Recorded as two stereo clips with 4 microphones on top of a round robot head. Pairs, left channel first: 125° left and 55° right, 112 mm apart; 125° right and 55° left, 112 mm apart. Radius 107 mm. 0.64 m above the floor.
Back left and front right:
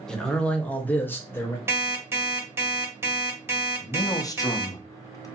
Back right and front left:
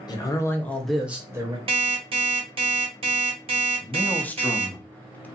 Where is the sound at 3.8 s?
165° left, 0.6 m.